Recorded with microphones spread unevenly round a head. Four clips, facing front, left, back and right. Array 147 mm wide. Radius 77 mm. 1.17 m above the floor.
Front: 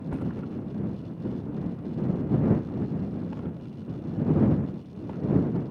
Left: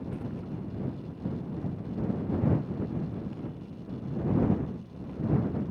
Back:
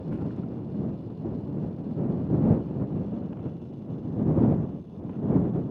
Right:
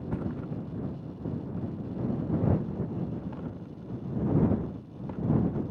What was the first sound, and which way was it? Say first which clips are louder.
A thud: right 3 dB, even; 35° right.